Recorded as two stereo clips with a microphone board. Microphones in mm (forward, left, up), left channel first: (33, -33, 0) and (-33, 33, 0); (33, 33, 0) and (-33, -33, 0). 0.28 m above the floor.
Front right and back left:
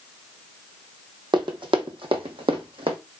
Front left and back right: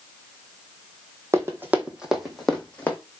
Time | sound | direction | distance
1.3 | running footsteps | 165° left | 0.9 m